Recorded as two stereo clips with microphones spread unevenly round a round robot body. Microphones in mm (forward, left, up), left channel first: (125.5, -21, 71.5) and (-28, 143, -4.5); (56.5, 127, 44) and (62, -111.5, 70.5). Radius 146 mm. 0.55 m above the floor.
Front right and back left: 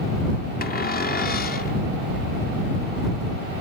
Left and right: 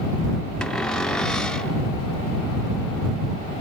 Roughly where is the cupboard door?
Ahead.